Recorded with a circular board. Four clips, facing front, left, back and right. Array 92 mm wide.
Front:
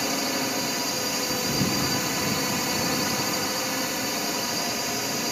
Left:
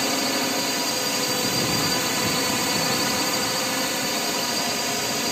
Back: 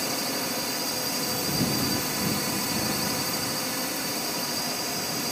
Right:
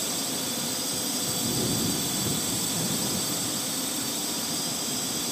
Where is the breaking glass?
I don't hear breaking glass.